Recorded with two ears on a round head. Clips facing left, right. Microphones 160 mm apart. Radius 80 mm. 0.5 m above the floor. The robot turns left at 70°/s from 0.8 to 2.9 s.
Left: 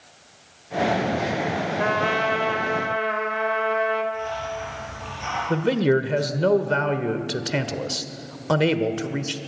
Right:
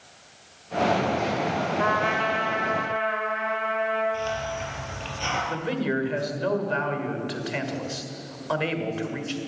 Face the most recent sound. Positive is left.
turn(degrees=55)  # may be behind; listen again after turning